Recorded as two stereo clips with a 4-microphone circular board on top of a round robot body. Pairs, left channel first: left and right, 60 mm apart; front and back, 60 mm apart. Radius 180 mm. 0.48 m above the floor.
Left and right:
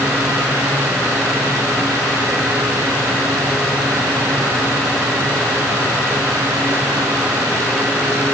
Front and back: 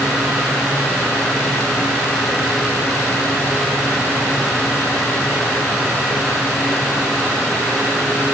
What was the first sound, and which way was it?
Only background noise.